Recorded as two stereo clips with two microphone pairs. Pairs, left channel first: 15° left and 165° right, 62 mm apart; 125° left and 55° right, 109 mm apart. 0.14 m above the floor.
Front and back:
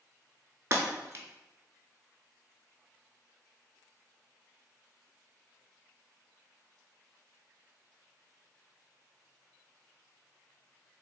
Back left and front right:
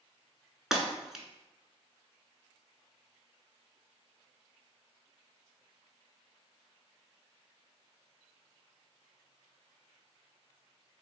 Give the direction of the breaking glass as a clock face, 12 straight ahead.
5 o'clock.